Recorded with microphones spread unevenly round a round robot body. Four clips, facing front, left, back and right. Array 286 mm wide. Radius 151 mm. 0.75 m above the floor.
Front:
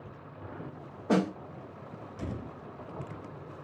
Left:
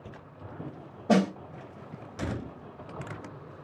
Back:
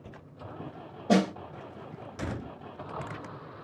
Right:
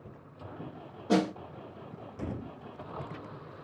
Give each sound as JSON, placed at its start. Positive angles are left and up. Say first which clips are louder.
{"t": 1.1, "sound": "a snare drum", "louder": "left 3 dB, back 3 dB", "azimuth_deg": 100, "distance_m": 2.5}